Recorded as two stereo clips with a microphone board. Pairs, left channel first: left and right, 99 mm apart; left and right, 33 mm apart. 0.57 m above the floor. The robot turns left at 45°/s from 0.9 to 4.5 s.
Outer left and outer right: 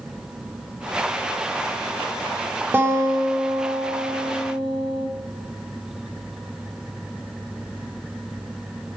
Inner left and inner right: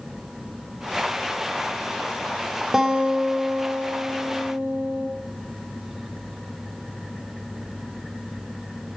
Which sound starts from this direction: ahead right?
A guitar, at 2.7 s.